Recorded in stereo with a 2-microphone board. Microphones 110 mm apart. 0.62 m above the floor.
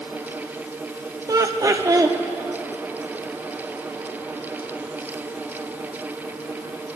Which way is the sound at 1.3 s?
35° right (ahead or behind).